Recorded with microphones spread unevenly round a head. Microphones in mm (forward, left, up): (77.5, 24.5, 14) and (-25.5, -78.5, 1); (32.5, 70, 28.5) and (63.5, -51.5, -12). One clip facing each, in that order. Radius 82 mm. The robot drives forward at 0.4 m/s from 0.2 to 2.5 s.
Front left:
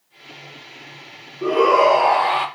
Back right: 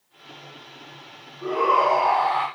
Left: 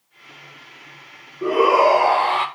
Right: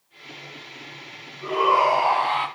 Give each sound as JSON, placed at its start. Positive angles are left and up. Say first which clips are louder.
{"t": 1.4, "sound": "a shout", "louder": "front left 6 dB, left 5 dB", "azimuth_deg": 90, "distance_m": 3.5}